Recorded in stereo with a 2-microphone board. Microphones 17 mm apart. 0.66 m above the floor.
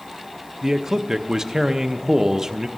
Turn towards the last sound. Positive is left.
turn(degrees=-30)  # may be behind; listen again after turning